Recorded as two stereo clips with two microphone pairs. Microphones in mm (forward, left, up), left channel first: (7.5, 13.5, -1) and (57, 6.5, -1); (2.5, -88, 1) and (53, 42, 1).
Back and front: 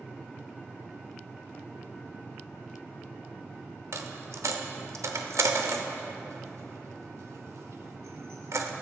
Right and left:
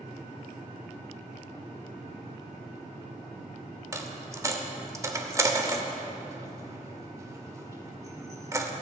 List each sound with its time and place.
3.9 s a dropped coin: straight ahead, 0.8 m